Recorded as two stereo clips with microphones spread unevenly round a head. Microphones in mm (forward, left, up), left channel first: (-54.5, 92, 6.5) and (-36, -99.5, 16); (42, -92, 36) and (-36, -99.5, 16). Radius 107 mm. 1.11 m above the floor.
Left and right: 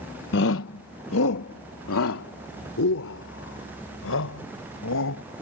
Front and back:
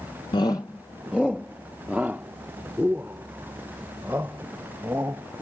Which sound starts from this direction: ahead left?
A shout, at 0.3 s.